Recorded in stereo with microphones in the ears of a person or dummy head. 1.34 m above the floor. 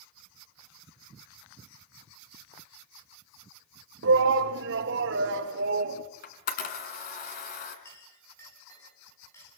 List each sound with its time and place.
4.0 s a shout: 65° right (ahead or behind), 1.9 m
6.2 s a camera shutter: 55° left (ahead or behind), 3.5 m
7.8 s a clink: 15° left (ahead or behind), 8 m